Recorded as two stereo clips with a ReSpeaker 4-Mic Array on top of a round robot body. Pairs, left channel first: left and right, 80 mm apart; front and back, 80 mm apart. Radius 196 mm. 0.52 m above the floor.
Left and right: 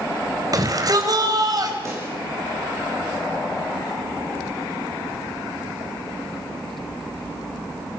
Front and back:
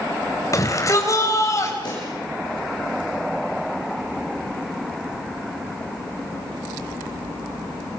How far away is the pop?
About 9 m.